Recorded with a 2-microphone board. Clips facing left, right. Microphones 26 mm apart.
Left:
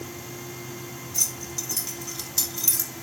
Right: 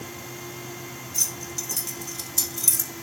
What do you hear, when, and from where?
1.1 s keys jangling: 5° left (ahead or behind), 2 m; by 2.9 s 30° left (ahead or behind), 2.5 m